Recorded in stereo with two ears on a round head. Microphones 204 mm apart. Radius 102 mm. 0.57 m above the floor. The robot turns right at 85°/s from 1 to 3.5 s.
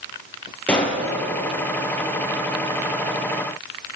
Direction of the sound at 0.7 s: 5° left (ahead or behind).